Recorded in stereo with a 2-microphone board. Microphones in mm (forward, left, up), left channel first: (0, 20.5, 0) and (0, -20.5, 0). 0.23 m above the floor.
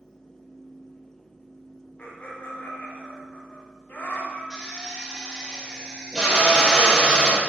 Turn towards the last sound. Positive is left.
turn(degrees=-10)  # may be behind; listen again after turning